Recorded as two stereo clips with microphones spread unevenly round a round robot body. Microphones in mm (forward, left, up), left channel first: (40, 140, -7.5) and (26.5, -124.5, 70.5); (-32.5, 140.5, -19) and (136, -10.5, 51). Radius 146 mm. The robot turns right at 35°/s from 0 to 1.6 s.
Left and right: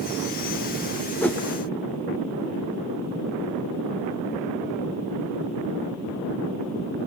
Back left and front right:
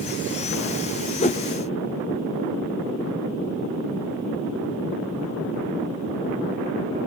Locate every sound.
1.2 s a whoosh: 150° left, 0.5 m; by 1.4 s 155° left, 0.5 m